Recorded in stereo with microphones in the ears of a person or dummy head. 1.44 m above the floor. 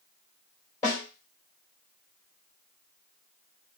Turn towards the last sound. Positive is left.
turn(degrees=15)  # may be behind; listen again after turning